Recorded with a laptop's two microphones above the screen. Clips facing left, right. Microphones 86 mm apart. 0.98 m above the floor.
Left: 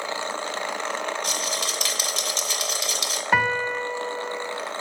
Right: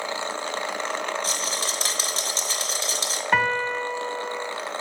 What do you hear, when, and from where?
1.2 s a rattle: 35° right (ahead or behind), 1.2 m
3.3 s a piano: centre (ahead or behind), 1.3 m